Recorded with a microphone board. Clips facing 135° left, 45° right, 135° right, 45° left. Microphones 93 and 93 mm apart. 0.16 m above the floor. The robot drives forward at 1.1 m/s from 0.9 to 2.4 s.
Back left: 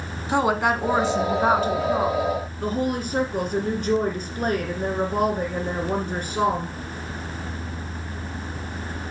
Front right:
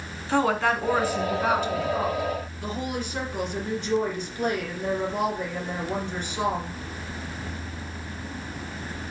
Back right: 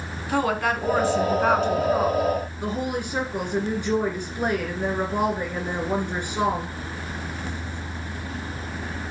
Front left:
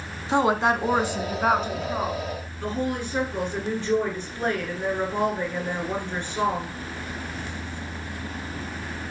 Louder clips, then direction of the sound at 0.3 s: Back left 2 dB, front left 2 dB; 80° left.